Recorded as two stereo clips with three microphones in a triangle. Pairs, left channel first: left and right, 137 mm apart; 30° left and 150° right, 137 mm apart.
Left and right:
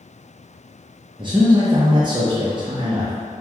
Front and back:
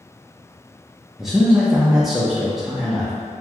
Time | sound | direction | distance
1.2 | a man speaking | 65° right | 0.6 m